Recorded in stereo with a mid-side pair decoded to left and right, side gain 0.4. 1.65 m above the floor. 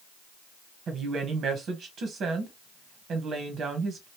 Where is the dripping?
No dripping in this recording.